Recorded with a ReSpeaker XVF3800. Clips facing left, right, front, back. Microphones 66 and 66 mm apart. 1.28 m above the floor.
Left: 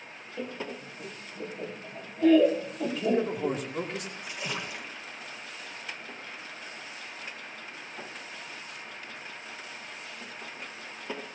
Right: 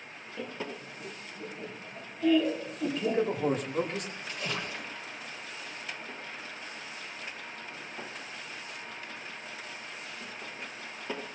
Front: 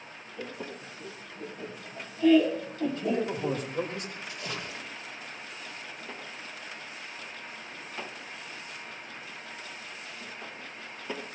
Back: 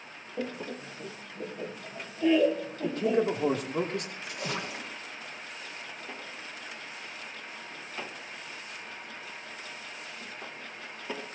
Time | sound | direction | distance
0.4 | laughter | 160° left | 2 m
2.8 | a man speaking | straight behind | 3 m
4.2 | a splash | 170° left | 1.5 m